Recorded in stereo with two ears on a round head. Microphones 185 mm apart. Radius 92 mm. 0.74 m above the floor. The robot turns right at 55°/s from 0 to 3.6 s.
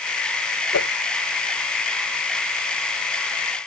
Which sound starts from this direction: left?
A whoosh, at 0.7 s.